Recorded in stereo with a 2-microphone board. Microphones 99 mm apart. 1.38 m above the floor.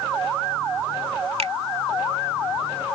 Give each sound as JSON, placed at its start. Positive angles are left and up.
{"t": 1.4, "sound": "a finger snap", "side_deg": -85}